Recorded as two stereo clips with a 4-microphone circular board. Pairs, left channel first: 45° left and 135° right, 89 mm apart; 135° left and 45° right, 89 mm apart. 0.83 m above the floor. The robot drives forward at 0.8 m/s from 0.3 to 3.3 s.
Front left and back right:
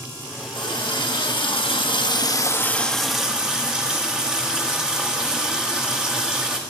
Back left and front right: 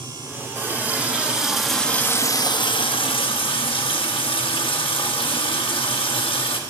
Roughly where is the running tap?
Ahead.